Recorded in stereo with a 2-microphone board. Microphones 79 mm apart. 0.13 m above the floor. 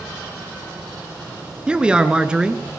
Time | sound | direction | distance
1.7 | a man speaking | 10° right (ahead or behind) | 1.3 m